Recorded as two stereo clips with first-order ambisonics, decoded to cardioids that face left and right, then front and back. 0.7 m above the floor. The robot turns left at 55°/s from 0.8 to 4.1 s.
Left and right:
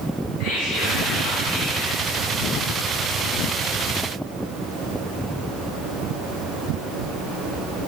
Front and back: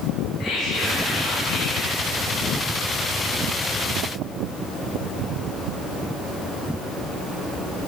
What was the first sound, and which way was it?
Whispering, 60° left.